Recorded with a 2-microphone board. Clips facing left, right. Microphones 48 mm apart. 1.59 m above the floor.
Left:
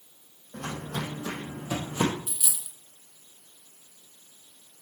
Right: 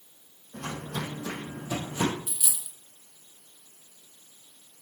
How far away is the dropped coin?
About 1.7 m.